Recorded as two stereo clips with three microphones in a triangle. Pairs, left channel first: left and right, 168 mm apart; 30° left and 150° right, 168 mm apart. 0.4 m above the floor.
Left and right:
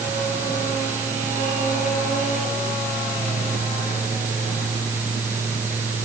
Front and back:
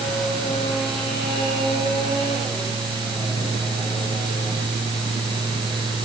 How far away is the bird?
No bird in this recording.